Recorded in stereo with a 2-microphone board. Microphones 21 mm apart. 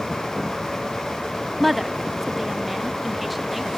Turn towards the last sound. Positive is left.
turn(degrees=-5)  # may be behind; listen again after turning